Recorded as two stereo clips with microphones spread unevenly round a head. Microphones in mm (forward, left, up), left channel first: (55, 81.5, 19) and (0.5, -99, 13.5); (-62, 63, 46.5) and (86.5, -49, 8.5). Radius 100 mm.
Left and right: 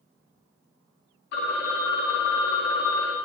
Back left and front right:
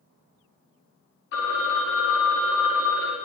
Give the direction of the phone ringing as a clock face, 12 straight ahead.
8 o'clock.